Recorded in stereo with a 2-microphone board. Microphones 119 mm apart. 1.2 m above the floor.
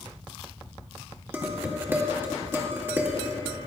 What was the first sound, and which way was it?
Dishes clattering, 20° right (ahead or behind).